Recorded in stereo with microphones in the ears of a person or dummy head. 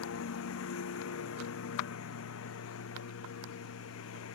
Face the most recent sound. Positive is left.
turn(degrees=85)